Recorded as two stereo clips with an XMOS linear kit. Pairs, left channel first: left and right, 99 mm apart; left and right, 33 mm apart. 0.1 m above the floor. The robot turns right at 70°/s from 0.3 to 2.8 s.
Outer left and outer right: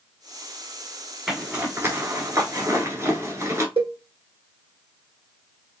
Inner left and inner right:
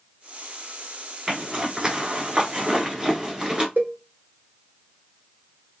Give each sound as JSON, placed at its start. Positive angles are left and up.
{"t": 1.3, "sound": "a zipper", "side_deg": -5, "distance_m": 1.0}
{"t": 3.8, "sound": "a cowbell", "side_deg": -70, "distance_m": 1.0}